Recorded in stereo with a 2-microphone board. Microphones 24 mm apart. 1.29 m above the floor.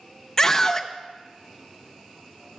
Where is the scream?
25° left (ahead or behind), 0.7 m.